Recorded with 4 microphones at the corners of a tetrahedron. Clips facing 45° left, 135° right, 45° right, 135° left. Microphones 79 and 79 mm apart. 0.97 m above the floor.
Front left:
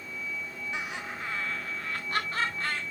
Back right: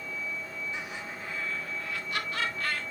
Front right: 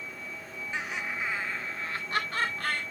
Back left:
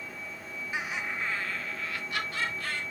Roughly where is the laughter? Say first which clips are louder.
Front left 2 dB, even; ahead left.